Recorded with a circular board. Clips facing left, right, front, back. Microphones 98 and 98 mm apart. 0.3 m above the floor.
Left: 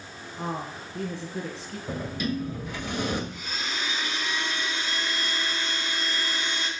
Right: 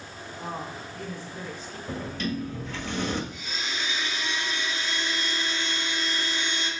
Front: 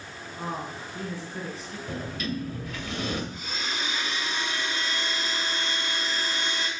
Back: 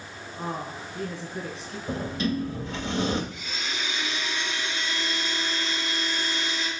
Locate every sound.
0.4 s a woman speaking: 90° left, 4.5 m
1.9 s a sliding door: 155° left, 1.5 m
3.3 s a blender: 50° left, 3 m